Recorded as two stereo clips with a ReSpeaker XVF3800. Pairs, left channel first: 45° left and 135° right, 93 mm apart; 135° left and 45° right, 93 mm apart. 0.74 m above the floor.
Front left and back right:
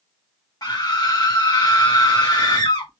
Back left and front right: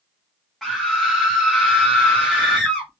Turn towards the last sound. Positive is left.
turn(degrees=50)